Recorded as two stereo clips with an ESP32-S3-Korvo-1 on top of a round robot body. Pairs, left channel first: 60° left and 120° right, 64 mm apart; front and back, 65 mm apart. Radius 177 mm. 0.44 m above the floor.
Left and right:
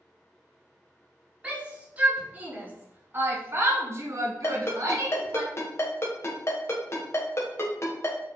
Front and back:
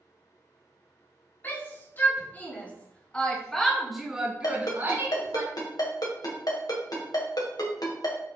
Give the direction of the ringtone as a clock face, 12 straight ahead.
12 o'clock.